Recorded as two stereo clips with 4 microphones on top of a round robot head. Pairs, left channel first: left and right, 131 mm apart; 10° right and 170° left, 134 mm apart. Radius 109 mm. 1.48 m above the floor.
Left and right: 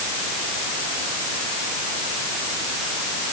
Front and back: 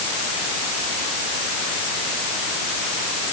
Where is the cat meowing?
No cat meowing in this recording.